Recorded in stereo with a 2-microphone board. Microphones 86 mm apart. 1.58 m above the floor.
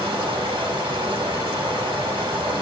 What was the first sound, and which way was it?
Running water, 75° right (ahead or behind).